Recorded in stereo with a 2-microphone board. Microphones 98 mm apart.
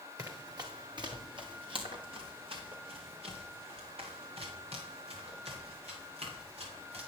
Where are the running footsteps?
35° right (ahead or behind), 2.5 m; by 7.0 s 85° right, 8 m.